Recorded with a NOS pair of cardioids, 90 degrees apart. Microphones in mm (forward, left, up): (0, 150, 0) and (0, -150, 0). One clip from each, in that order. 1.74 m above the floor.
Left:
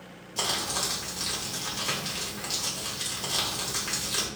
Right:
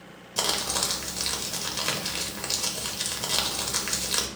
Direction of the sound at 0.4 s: 35° right.